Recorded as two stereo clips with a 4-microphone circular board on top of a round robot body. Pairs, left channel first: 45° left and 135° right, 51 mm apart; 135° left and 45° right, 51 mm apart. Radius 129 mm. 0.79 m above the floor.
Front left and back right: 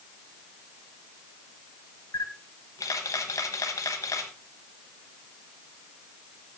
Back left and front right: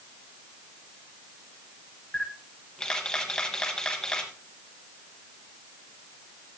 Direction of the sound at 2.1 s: 55° left.